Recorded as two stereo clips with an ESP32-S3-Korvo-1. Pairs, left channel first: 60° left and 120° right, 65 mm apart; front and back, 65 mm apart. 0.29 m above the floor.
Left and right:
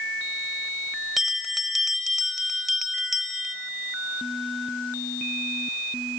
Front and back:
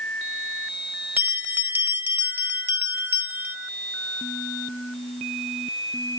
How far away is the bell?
About 0.9 m.